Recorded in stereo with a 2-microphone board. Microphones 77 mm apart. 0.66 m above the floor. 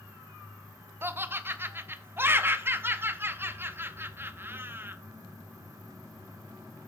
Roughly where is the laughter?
Right.